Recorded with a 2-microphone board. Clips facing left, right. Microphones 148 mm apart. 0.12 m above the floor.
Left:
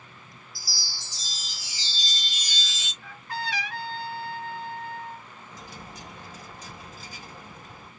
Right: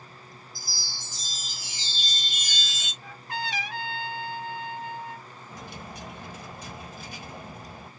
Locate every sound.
0.6 s a chime: 55° right (ahead or behind), 1.9 m
3.0 s a trumpet: 20° right (ahead or behind), 1.6 m
5.5 s a dropped coin: 65° right (ahead or behind), 1.6 m